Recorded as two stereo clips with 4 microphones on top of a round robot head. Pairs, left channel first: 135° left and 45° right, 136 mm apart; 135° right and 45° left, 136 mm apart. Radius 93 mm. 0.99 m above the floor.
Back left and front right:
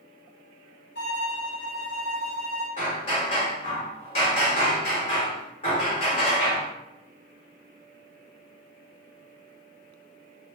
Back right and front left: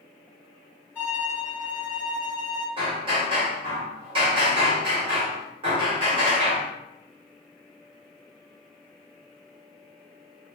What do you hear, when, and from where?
0.9 s a violin: 145° left, 1.0 m
2.8 s hammering: 90° left, 0.8 m